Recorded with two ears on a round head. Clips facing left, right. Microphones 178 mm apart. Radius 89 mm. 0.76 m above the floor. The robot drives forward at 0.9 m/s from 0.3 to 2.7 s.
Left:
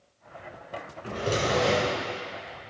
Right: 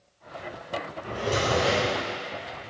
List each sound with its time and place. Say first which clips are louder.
1.0 s a drawer: even; 30° left (ahead or behind), 2.5 m; by 2.0 s 20° left (ahead or behind), 3.5 m